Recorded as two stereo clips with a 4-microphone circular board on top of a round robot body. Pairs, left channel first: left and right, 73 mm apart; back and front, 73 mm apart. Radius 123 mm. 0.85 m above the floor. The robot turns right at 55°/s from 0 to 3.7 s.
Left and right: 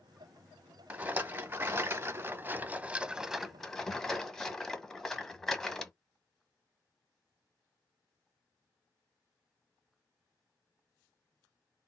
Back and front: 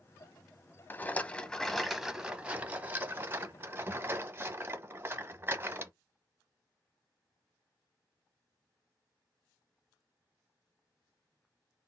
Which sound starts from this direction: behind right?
A rattle, at 0.9 s.